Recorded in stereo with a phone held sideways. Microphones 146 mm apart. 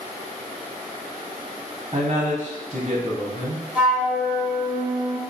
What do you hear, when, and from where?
1.9 s a man speaking: 45° right (ahead or behind), 0.5 m
3.8 s a flute: 10° right (ahead or behind), 0.7 m